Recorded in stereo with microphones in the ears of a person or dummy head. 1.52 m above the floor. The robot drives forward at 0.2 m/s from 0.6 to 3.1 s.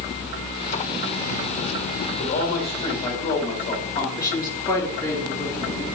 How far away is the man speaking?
About 1.4 m.